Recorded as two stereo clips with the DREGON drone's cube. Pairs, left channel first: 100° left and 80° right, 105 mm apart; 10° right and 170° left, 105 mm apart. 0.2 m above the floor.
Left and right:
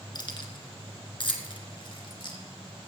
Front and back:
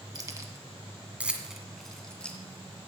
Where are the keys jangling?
130° left, 1.6 m; by 2.4 s 65° left, 2 m.